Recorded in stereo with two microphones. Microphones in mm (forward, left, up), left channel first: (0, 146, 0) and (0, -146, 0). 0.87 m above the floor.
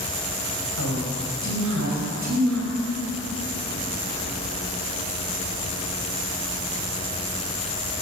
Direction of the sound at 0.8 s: 65° right (ahead or behind).